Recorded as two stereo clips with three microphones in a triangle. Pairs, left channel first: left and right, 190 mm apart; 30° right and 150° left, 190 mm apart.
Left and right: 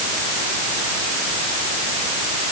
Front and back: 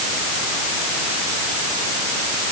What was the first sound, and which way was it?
Only background noise.